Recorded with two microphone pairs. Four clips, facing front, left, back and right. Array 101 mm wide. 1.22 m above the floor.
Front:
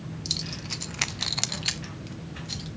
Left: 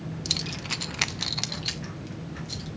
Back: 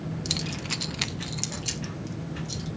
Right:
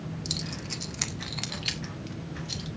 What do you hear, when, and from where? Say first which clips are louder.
0.2 s keys jangling: left 2 dB, back 5 dB; 135° left, 1.1 m; by 2.7 s 10° right, 2 m